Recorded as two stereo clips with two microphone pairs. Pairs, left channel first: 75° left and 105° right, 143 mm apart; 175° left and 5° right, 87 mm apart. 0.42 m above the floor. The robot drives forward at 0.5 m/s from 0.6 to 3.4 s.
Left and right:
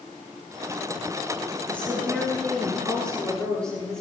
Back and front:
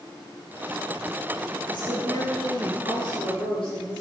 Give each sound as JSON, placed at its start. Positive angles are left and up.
{"t": 1.7, "sound": "a woman speaking", "azimuth_deg": 155, "distance_m": 5.5}